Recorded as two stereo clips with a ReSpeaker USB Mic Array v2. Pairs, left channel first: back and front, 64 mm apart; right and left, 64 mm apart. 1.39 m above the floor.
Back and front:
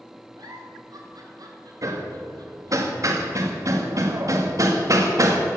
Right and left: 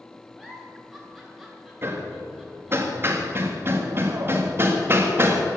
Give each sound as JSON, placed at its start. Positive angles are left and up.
{"t": 0.4, "sound": "a giggle", "azimuth_deg": 0, "distance_m": 3.0}
{"t": 1.8, "sound": "hammering", "azimuth_deg": 35, "distance_m": 1.8}